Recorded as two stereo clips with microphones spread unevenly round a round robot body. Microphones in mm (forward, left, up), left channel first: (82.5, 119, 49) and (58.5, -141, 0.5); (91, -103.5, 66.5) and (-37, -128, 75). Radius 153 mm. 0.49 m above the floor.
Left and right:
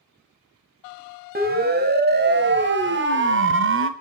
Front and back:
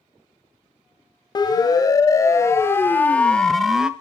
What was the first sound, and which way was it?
A siren, 45° right.